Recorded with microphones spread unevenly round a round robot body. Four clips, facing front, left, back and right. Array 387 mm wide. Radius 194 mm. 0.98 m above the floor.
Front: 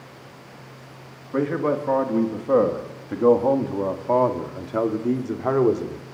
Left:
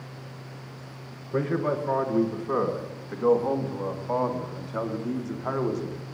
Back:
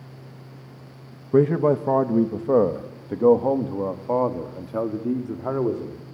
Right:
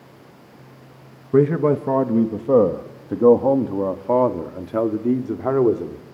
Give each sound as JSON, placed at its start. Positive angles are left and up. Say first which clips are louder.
{"t": 1.3, "sound": "a man speaking", "louder": "right 10 dB, back 4 dB", "azimuth_deg": -110, "distance_m": 1.2}